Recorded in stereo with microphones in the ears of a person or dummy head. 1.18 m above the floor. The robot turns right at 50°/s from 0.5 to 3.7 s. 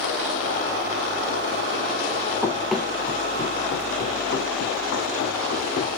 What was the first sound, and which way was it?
Running footsteps, 15° right (ahead or behind).